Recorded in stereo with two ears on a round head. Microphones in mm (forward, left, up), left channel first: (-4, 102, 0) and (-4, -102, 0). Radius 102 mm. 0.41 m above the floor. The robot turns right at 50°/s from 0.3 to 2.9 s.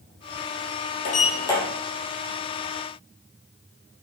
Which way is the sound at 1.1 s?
40° left (ahead or behind).